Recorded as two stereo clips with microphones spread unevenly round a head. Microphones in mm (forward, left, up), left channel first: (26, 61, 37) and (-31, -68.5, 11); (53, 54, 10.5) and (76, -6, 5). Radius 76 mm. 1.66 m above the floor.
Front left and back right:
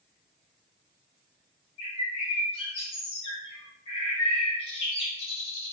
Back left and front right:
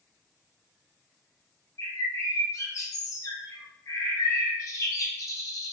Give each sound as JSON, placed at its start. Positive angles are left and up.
{"t": 1.8, "sound": "a bird", "azimuth_deg": 100, "distance_m": 0.6}